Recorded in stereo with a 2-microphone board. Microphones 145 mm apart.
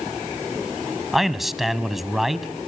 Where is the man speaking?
Centre (ahead or behind), 1.2 m.